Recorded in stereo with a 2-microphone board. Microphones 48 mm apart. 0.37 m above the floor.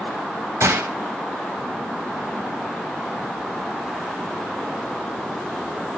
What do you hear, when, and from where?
0.6 s a gunshot: 75° right (ahead or behind), 0.6 m